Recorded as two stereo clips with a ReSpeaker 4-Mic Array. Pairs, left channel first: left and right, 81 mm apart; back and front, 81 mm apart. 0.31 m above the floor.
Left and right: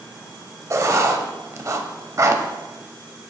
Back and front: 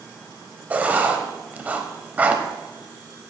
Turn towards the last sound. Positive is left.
turn(degrees=-60)